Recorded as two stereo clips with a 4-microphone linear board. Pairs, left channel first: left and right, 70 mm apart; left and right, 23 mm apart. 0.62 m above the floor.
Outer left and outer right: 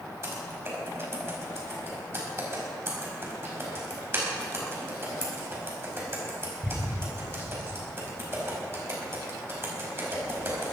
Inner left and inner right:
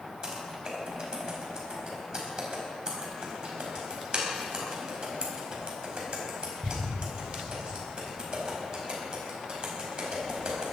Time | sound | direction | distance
0.2 | typing on a keyboard | 35° right (ahead or behind) | 4.5 m